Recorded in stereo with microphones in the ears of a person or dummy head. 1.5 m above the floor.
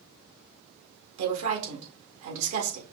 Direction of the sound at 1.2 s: 80° right.